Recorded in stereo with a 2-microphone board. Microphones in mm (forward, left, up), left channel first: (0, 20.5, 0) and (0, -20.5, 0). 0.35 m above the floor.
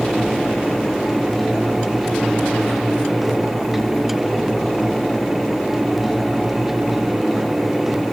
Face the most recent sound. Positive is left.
No sound to turn to.